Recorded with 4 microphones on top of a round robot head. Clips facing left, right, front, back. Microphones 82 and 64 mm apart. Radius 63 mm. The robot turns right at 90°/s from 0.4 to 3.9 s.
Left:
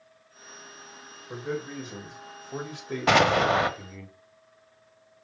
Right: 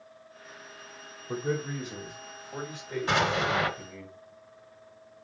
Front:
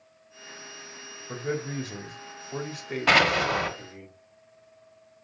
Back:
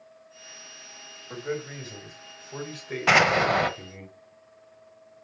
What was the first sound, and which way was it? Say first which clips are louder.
A man speaking: right 2 dB, front 2 dB; 55° right.